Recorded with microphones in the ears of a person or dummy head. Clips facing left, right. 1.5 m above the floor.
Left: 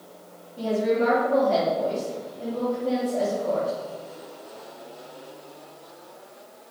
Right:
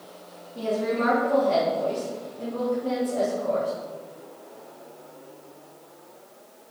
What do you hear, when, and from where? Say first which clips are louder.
0.6 s a woman speaking: left 3 dB; 65° right (ahead or behind), 3.5 m